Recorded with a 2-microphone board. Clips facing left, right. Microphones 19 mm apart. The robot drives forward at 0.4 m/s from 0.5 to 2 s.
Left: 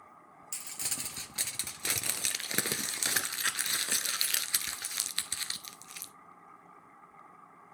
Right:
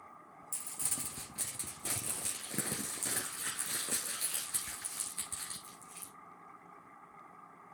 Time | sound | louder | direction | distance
0.5 | crumpling | left 4 dB | 50° left (ahead or behind) | 1.0 m